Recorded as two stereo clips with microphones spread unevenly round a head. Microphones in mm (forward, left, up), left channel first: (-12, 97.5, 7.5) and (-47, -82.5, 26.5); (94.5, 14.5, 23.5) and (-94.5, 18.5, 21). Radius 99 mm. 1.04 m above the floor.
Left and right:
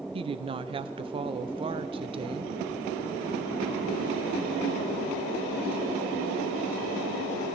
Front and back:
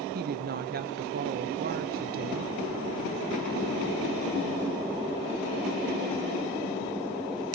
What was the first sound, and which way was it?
A woman speaking, 160° right.